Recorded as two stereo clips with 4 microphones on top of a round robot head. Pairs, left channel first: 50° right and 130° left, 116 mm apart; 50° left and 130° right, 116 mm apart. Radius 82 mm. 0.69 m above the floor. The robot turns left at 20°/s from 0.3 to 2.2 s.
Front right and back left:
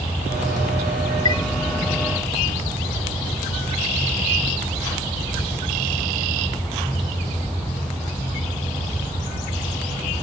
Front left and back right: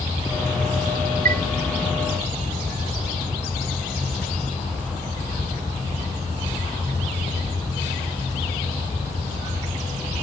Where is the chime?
110° right.